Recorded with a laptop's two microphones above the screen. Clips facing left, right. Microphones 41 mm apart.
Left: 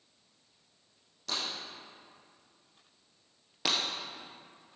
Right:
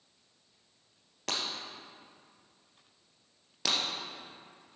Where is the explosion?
I don't hear an explosion.